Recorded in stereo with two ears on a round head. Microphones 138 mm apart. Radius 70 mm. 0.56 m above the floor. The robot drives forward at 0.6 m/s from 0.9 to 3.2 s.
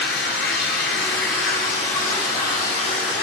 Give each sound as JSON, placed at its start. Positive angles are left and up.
{"t": 0.0, "sound": "running water", "side_deg": 85, "distance_m": 4.5}